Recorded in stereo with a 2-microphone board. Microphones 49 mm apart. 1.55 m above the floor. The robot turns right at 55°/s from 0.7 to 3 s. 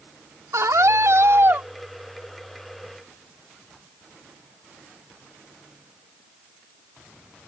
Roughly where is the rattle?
I don't hear a rattle.